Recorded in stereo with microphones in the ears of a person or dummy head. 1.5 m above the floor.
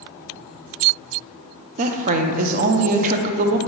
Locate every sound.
1.8 s a woman speaking: 40° right (ahead or behind), 0.6 m